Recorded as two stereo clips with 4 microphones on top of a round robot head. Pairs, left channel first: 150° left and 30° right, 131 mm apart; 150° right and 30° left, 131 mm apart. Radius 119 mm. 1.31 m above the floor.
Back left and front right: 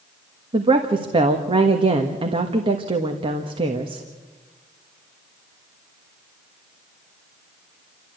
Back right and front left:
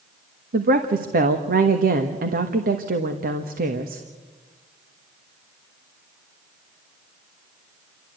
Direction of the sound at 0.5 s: 20° left.